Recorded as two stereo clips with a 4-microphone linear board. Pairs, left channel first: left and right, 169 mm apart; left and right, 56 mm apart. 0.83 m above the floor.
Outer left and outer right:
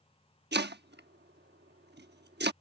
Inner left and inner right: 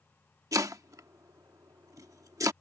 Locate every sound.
0.5 s chopping: 80° right